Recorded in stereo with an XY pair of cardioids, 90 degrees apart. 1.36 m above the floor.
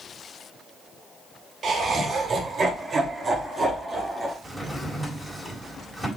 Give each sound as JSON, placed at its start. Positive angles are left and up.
{"t": 1.6, "sound": "laughter", "azimuth_deg": -55, "distance_m": 2.5}
{"t": 4.4, "sound": "a drawer", "azimuth_deg": -10, "distance_m": 4.0}